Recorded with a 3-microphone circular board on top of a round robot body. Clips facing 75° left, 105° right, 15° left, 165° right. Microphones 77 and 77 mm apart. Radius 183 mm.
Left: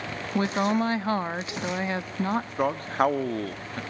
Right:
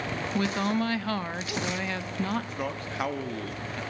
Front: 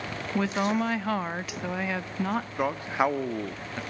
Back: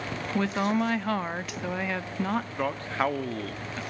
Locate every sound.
0.3 s a woman speaking: 100° left, 0.8 m
2.6 s a man speaking: 85° left, 1.1 m